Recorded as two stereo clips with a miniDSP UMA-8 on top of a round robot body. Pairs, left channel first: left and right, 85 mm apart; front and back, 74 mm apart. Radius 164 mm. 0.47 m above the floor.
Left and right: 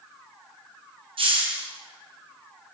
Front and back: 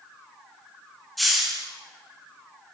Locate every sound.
1.2 s a hiss: 90° right, 6 m